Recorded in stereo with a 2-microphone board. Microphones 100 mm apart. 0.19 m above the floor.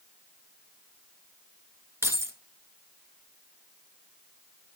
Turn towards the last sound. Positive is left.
turn(degrees=-25)  # may be behind; listen again after turning